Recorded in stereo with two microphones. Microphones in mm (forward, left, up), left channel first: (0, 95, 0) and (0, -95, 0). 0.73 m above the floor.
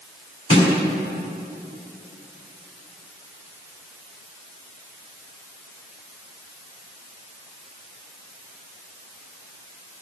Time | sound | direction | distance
0.5 | a snare drum | 80° left | 1.8 m